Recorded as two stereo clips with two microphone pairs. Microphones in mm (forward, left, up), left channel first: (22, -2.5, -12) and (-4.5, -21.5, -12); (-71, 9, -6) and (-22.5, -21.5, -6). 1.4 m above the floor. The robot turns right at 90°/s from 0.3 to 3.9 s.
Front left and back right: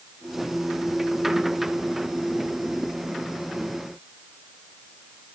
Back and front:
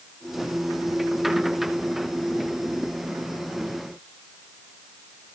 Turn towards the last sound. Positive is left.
No sound to turn to.